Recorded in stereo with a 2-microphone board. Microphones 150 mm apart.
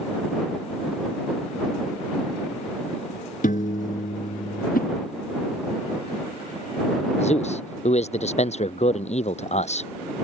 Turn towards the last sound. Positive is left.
turn(degrees=45)  # may be behind; listen again after turning